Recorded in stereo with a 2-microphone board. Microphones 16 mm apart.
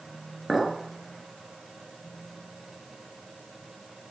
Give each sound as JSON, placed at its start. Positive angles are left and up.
{"t": 0.5, "sound": "a clink", "side_deg": -10, "distance_m": 1.1}